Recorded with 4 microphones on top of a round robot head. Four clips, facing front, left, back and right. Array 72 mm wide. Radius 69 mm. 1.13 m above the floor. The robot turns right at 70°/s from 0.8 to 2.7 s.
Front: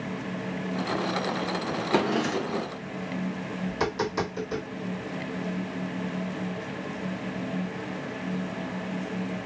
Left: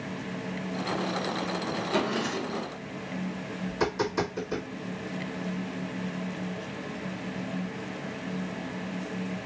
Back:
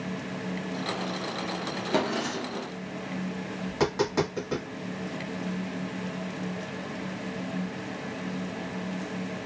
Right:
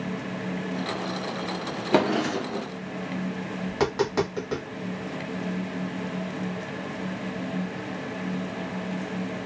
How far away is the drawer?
About 0.5 m.